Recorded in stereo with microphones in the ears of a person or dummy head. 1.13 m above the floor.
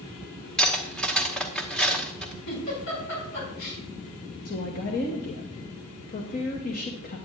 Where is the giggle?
75° left (ahead or behind), 5 m.